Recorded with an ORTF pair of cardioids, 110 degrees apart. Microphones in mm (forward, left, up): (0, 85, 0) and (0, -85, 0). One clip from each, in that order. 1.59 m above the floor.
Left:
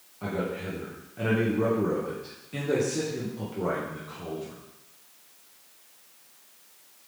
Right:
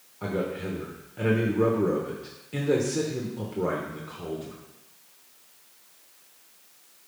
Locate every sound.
0.2 s a man speaking: 15° right, 0.8 m